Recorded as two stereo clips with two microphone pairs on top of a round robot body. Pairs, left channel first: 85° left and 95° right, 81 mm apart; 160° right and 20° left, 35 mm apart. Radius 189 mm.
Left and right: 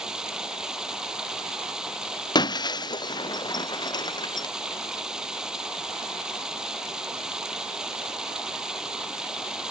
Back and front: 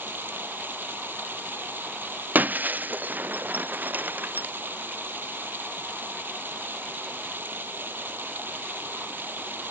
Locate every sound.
0.0 s running water: 10° right
2.4 s breaking glass: 55° left